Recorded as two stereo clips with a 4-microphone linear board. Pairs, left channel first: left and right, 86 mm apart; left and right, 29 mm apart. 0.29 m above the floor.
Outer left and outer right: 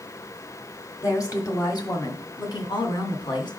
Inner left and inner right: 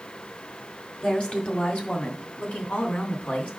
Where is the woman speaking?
40° left (ahead or behind), 1.7 m; by 3.5 s 65° left (ahead or behind), 2.5 m.